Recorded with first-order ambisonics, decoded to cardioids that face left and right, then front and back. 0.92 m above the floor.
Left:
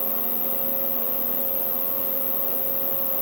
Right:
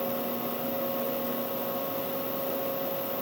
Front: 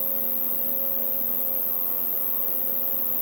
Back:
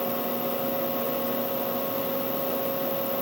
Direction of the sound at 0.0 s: 50° left.